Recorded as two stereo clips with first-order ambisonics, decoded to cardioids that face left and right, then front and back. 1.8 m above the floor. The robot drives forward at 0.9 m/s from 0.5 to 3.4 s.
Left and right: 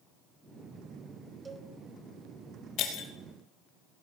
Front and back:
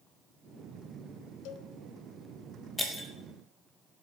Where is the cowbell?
15° right, 1.3 m.